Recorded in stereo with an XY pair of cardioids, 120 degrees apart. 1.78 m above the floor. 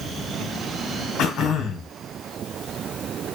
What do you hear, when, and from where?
1.2 s throat clearing: 65° left, 1.0 m